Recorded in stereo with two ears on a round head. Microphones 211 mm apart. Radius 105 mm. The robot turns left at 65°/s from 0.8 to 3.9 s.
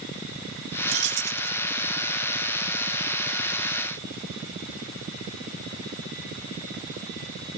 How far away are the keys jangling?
About 0.9 m.